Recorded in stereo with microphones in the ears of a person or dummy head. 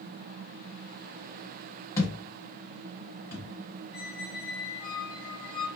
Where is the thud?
15° left (ahead or behind), 1.0 m.